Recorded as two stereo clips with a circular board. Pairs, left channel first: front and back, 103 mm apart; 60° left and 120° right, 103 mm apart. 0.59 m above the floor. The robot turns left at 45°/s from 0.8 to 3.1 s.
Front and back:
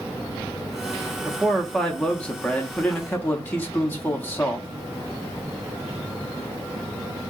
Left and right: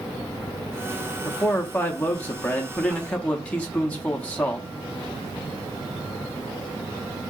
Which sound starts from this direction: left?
A man speaking, at 1.2 s.